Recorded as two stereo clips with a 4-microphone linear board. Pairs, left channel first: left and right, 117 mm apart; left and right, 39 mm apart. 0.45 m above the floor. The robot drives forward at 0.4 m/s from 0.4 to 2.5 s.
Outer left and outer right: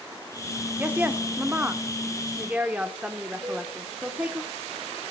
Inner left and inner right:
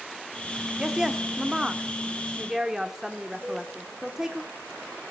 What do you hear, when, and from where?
0.8 s a woman speaking: 15° right (ahead or behind), 0.8 m
3.4 s a cowbell: 30° right (ahead or behind), 7 m